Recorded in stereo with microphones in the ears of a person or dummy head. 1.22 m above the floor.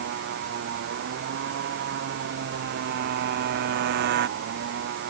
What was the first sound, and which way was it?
A motorcycle, 60° right (ahead or behind).